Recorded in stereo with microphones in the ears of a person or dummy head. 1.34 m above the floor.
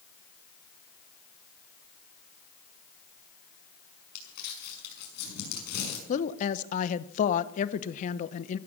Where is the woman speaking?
50° left (ahead or behind), 0.9 m.